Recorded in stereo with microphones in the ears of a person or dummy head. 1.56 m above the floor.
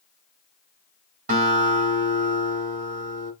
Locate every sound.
1.3 s a guitar: 45° right (ahead or behind), 2.5 m